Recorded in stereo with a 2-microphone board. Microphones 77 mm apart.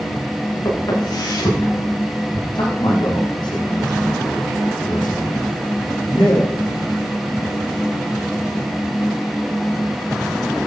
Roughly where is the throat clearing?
No throat clearing in this recording.